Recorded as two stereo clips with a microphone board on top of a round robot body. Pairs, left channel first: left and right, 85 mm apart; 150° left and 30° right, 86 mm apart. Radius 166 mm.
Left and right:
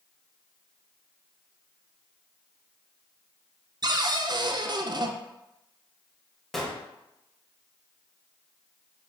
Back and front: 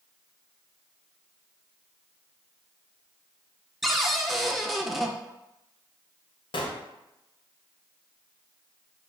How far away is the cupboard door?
About 0.7 m.